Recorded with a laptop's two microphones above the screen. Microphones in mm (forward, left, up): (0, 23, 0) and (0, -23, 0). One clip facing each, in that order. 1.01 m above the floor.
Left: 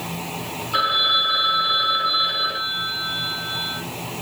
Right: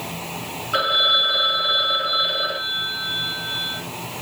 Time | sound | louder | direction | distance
0.7 | a phone ringing | right 1 dB | 30° right (ahead or behind) | 2 m